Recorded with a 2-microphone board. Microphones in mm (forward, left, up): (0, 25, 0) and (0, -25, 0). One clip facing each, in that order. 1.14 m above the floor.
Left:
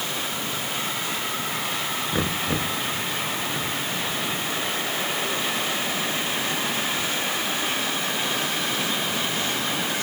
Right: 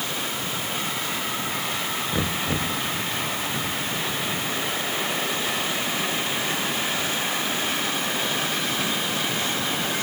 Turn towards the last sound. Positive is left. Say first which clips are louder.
# left 1 dB
turn(degrees=10)  # may be behind; listen again after turning